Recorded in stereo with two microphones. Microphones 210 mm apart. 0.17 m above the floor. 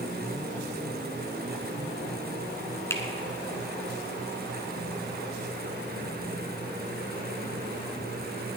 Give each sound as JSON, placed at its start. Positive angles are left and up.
{"t": 2.9, "sound": "a finger snap", "side_deg": 15, "distance_m": 1.3}